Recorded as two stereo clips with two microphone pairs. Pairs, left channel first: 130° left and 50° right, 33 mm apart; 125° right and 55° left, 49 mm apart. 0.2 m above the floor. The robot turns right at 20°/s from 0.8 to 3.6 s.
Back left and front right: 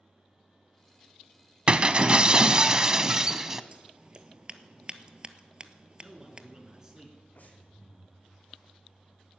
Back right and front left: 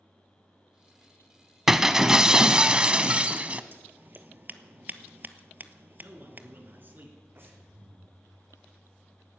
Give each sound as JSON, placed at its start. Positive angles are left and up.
{"t": 1.7, "sound": "breaking glass", "azimuth_deg": -20, "distance_m": 0.6}
{"t": 3.7, "sound": "scissors", "azimuth_deg": 10, "distance_m": 0.7}
{"t": 6.0, "sound": "a man speaking", "azimuth_deg": 15, "distance_m": 3.0}
{"t": 7.3, "sound": "breathing", "azimuth_deg": 95, "distance_m": 2.5}